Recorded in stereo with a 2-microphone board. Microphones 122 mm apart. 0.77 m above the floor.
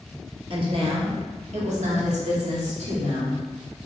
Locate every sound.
0.5 s a woman speaking: 40° right (ahead or behind), 1.2 m; by 3.4 s 65° right (ahead or behind), 1.9 m